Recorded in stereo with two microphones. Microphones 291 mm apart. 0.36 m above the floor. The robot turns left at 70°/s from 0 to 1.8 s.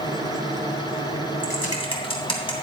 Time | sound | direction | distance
1.4 | typing on a keyboard | 40° left (ahead or behind) | 2.5 m